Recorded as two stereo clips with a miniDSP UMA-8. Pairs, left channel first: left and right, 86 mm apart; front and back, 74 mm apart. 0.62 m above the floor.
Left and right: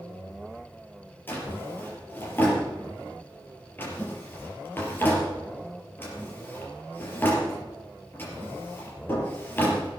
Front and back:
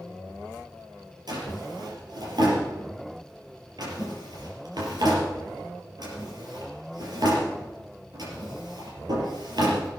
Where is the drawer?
155° left, 4.5 m.